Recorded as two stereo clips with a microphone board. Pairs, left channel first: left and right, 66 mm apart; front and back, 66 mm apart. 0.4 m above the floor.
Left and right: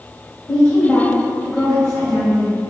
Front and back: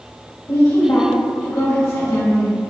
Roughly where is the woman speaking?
Ahead.